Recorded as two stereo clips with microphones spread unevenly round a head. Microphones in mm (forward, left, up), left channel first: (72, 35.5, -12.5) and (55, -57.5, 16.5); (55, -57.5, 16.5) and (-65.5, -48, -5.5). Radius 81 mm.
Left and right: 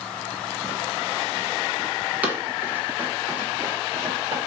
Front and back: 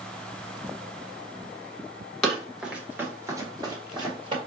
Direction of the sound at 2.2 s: 70° right.